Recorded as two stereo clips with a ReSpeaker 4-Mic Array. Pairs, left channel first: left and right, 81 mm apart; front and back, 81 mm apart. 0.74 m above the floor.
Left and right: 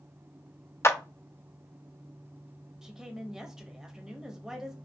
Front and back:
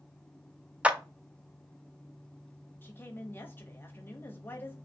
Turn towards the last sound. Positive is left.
turn(degrees=-15)